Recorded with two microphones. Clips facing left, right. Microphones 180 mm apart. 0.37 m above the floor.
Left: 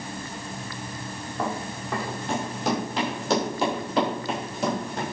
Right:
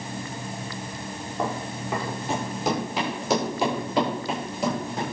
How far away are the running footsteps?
About 7 m.